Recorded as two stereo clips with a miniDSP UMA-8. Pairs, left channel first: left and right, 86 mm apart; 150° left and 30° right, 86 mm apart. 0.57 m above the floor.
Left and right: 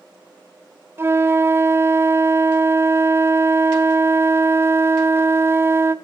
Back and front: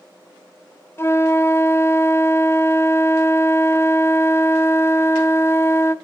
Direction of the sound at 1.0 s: 150° right.